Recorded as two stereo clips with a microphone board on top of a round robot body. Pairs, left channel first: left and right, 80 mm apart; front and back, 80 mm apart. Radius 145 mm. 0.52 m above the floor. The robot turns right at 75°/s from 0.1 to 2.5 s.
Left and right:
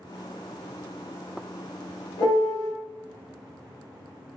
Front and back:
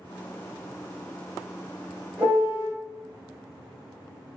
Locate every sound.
2.2 s a piano: 105° left, 1.5 m; by 2.7 s 130° left, 1.5 m